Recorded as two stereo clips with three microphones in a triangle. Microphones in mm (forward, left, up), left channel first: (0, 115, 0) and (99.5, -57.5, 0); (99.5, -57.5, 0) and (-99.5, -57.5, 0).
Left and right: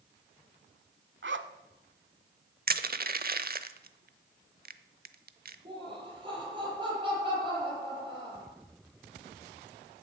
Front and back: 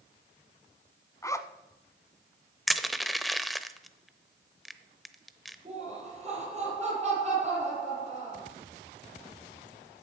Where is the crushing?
90° right, 0.8 m.